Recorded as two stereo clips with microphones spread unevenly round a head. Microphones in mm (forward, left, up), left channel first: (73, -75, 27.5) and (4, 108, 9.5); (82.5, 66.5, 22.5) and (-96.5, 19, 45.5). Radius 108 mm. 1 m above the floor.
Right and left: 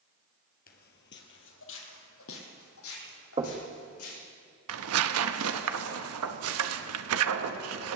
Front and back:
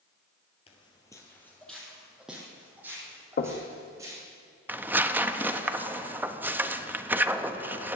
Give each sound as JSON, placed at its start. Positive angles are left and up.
{"t": 0.7, "sound": "footsteps", "azimuth_deg": -50, "distance_m": 1.5}
{"t": 3.4, "sound": "knocking", "azimuth_deg": 50, "distance_m": 1.4}
{"t": 4.7, "sound": "tearing paper", "azimuth_deg": 115, "distance_m": 0.8}